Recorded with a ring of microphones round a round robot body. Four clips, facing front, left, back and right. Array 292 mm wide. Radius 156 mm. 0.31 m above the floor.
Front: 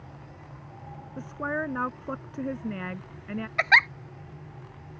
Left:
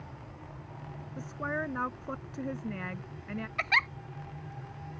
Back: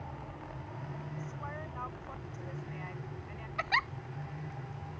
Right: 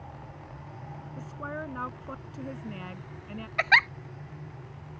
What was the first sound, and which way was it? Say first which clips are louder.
A woman speaking: left 3 dB, front 16 dB; 15° left.